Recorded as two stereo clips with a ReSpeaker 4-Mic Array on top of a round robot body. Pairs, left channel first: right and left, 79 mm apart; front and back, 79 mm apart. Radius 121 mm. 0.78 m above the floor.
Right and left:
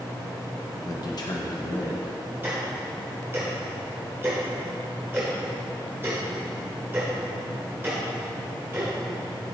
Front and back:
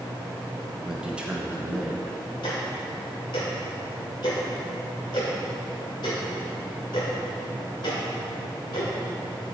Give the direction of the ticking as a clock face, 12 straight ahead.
11 o'clock.